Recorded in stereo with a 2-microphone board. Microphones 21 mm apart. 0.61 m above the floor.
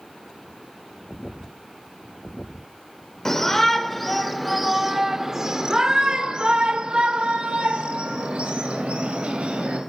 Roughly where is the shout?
Centre.